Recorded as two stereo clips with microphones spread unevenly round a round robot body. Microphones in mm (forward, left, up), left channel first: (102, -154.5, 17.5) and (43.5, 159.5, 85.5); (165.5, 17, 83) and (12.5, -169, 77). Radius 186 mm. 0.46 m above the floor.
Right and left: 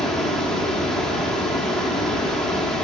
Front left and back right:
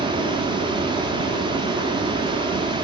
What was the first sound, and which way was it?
Running water, 125° right.